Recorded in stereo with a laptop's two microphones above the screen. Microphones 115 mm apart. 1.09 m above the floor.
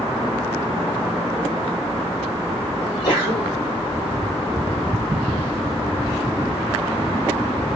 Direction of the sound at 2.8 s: 25° left (ahead or behind).